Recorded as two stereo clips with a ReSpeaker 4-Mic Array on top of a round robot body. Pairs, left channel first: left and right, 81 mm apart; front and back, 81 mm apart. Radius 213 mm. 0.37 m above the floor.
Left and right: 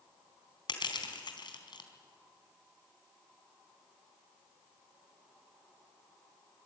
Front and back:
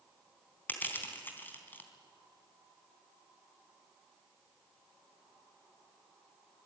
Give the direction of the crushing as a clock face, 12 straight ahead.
10 o'clock.